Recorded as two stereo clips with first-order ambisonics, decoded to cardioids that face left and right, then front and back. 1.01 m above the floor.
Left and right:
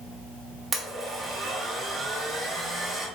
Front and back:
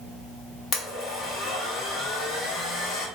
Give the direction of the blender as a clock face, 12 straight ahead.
1 o'clock.